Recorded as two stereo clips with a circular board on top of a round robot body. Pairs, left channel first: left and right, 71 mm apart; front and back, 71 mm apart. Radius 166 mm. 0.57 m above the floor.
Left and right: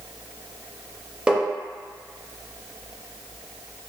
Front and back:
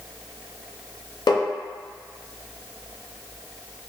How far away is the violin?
No violin in this recording.